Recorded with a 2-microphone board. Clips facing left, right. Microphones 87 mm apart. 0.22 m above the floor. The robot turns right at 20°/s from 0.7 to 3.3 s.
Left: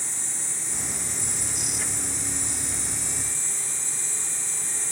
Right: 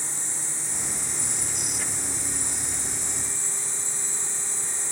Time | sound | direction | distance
0.0 | an insect | 40° right | 2.5 m